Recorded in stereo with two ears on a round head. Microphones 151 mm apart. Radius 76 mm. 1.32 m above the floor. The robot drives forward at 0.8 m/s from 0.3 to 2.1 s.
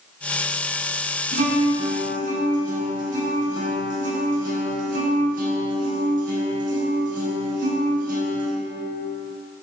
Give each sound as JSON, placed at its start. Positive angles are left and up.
{"t": 1.3, "sound": "a guitar", "side_deg": -60, "distance_m": 4.5}